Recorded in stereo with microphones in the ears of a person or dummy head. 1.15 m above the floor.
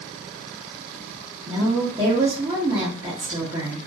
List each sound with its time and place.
1.5 s a woman speaking: 25° right (ahead or behind), 1.1 m